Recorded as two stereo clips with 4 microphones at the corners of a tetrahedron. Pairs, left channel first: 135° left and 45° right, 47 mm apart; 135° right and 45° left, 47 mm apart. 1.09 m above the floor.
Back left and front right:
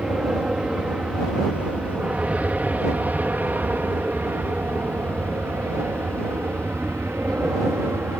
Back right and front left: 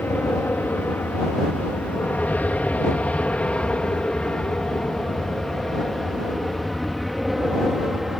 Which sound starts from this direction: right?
An aircraft, at 0.0 s.